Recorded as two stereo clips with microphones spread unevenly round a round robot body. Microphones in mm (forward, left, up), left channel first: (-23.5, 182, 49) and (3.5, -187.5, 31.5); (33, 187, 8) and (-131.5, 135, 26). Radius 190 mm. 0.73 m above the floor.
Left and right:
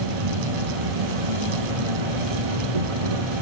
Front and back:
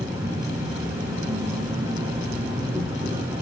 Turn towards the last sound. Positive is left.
turn(degrees=-85)